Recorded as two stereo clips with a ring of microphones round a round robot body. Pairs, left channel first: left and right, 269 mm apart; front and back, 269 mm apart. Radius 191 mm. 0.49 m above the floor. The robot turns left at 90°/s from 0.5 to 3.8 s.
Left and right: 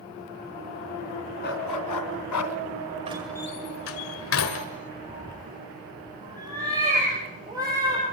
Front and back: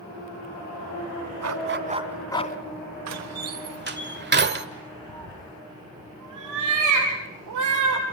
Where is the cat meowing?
170° right, 5.5 m.